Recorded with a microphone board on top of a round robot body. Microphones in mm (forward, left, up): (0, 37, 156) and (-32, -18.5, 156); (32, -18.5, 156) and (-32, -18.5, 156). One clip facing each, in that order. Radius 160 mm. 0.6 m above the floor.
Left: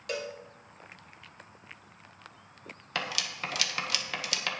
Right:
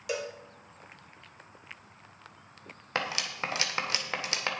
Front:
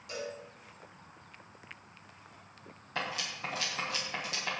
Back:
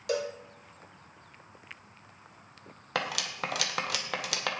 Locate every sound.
0.1 s a cowbell: 155° left, 0.9 m
3.0 s cutlery clinking: straight behind, 1.6 m